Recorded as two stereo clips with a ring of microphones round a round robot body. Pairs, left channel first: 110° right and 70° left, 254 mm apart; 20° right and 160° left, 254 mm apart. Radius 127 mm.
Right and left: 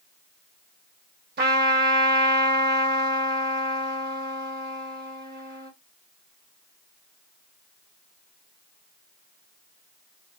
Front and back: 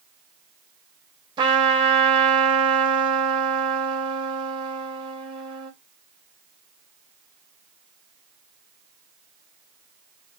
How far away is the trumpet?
About 0.8 m.